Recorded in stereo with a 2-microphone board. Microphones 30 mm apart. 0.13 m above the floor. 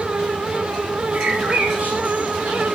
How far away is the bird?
About 4 m.